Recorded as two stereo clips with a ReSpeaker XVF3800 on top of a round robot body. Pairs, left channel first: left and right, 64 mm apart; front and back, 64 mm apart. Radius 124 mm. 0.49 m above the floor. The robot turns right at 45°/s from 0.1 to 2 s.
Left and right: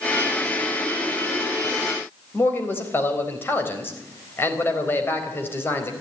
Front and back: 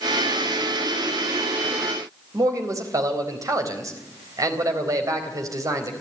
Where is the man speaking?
150° left, 4 m.